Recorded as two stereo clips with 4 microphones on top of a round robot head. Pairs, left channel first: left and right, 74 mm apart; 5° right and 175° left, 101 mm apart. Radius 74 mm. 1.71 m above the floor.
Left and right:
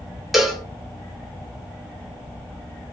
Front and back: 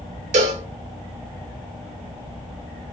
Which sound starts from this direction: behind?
A cowbell, at 0.3 s.